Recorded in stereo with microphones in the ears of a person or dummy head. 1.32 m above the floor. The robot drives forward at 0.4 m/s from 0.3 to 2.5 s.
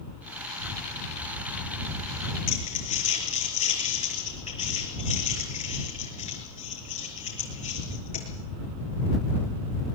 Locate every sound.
2.5 s crumpling: 40° left (ahead or behind), 7 m